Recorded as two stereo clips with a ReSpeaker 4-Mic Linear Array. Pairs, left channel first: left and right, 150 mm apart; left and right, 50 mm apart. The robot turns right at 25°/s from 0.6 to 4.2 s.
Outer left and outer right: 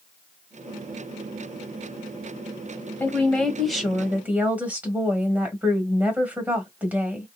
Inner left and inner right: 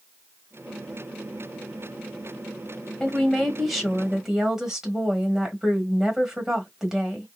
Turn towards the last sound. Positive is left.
turn(degrees=-165)